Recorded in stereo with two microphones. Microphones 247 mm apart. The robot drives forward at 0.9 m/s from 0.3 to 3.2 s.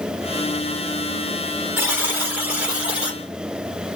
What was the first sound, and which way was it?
A buzzer, 10° right (ahead or behind).